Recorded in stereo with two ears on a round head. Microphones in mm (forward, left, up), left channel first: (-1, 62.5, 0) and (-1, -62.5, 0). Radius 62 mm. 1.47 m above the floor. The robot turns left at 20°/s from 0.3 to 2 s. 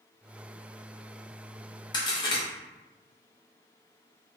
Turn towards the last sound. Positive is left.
turn(degrees=35)  # may be behind; listen again after turning